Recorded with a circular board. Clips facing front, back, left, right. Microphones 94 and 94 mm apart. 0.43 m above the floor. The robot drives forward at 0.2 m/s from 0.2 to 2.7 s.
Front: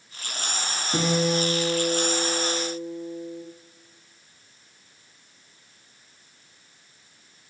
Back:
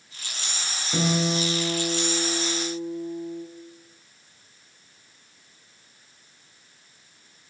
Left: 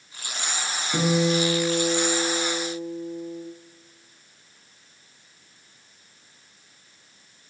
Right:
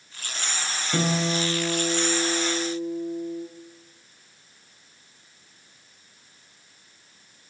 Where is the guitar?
130° right, 1.1 m; by 3.4 s 145° right, 1.3 m.